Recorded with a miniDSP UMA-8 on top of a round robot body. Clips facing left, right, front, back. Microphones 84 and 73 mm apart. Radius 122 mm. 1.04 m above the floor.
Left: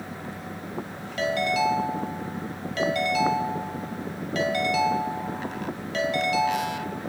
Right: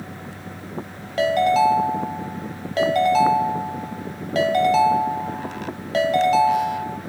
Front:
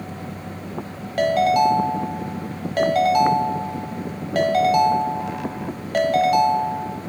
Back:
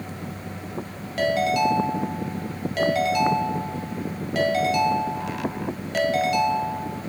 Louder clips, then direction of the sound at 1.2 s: Right 7 dB, front 4 dB; 45° right.